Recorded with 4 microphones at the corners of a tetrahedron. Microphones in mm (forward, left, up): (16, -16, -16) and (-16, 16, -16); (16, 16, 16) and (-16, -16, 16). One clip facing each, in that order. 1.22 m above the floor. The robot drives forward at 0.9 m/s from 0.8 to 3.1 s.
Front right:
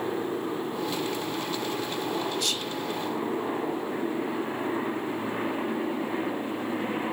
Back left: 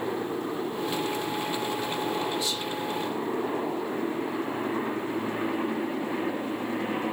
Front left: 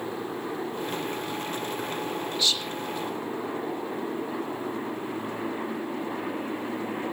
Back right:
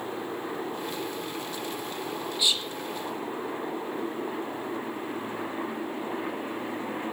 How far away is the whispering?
About 1.2 m.